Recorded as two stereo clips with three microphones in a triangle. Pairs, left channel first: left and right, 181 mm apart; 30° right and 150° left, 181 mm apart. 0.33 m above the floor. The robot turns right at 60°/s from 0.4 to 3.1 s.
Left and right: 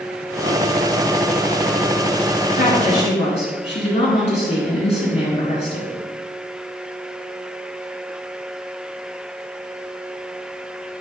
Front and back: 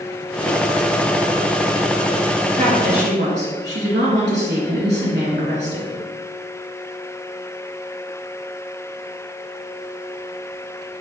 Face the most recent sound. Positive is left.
turn(degrees=140)